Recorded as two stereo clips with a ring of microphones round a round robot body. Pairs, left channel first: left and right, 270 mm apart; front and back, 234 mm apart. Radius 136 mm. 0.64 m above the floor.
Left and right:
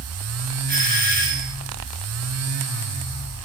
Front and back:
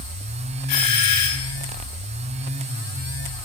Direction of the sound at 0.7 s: 30° right.